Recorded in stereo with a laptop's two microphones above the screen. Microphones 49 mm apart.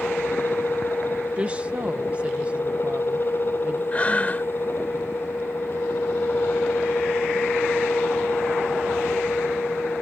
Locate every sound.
0.0 s a fan: 50° left (ahead or behind)
1.4 s a woman speaking: 25° right (ahead or behind)
3.9 s breathing: 30° left (ahead or behind)